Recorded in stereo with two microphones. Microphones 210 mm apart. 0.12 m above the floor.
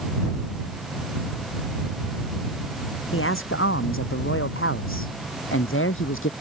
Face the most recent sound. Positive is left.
turn(degrees=75)  # may be behind; listen again after turning